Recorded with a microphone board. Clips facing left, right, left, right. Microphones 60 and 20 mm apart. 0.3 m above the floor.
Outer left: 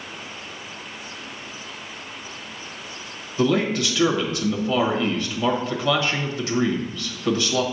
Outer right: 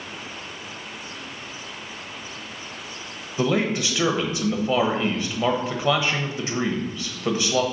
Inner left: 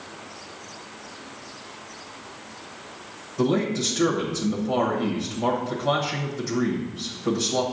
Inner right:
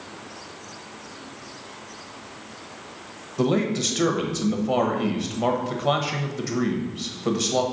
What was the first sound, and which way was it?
A man speaking, 20° right (ahead or behind).